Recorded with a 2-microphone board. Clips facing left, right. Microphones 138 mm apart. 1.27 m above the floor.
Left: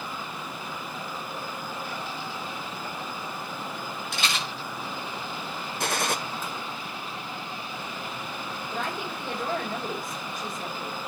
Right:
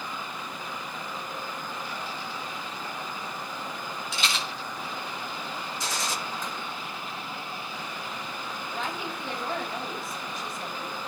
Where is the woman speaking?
60° left (ahead or behind), 6.5 m.